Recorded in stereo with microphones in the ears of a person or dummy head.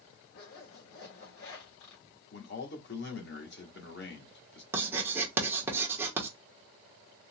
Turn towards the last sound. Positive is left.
turn(degrees=-15)  # may be behind; listen again after turning